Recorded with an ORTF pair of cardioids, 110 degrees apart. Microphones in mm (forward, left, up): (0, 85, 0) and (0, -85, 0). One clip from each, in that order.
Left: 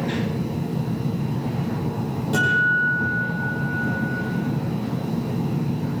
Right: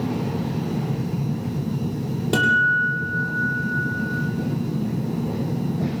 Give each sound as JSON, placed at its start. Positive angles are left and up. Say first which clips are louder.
{"t": 2.3, "sound": "a guitar", "louder": "right 1 dB", "azimuth_deg": -60, "distance_m": 8.0}